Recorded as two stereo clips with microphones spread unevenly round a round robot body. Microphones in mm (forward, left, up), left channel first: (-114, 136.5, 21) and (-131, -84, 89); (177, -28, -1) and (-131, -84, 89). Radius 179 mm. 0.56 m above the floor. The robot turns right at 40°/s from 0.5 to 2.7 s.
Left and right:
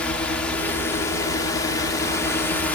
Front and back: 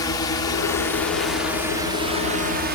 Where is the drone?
40° left; by 2.8 s 130° left.